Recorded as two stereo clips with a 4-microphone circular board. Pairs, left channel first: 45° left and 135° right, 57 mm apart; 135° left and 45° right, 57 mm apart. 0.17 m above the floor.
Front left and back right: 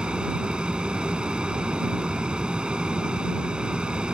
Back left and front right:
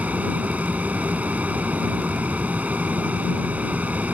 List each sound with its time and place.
0.0 s an aircraft: 80° right